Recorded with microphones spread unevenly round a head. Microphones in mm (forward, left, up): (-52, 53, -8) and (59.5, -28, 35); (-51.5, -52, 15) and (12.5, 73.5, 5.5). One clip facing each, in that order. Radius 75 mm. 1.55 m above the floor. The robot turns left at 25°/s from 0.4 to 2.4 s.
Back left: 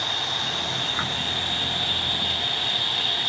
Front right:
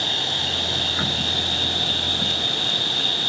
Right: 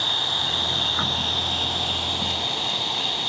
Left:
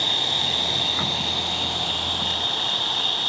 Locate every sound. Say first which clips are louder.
0.0 s an insect: front right 2 dB, left 1 dB; 15° left; by 3.3 s 35° right